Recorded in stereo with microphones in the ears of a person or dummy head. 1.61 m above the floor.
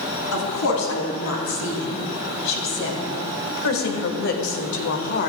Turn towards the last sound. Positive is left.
turn(degrees=50)  # may be behind; listen again after turning